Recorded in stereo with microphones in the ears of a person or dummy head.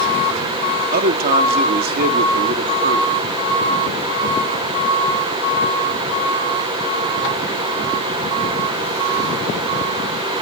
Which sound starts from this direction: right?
A man speaking, at 0.9 s.